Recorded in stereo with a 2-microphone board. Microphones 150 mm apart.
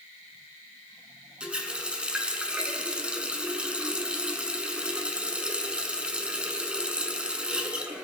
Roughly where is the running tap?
Centre.